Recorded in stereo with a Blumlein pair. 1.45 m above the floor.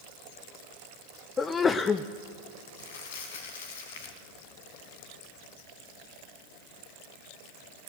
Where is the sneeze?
20° left, 0.6 m.